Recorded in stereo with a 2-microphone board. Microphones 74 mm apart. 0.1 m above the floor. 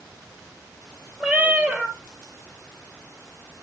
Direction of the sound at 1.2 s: 15° right (ahead or behind).